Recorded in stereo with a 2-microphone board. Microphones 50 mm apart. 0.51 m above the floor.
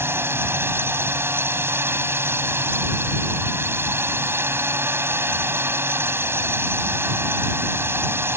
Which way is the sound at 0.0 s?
45° right (ahead or behind).